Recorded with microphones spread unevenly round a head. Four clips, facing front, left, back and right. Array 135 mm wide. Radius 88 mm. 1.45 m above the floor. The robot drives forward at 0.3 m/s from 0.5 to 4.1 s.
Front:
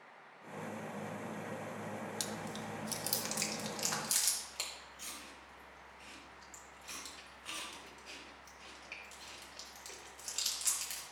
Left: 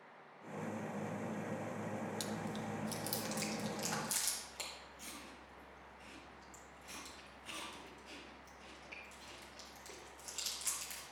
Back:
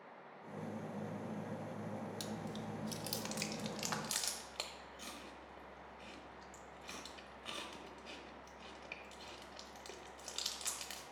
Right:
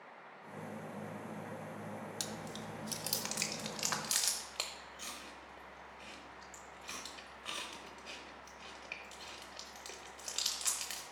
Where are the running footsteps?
I don't hear running footsteps.